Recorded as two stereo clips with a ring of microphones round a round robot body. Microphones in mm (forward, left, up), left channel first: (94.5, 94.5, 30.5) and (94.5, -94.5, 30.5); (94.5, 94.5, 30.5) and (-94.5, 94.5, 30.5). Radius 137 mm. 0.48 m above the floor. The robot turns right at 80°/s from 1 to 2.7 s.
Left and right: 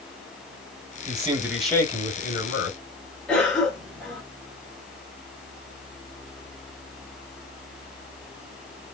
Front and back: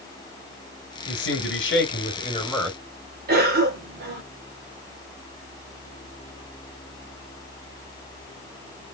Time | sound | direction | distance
1.1 | a man speaking | 35° right | 1.7 m
3.3 | a cough | 175° left | 2 m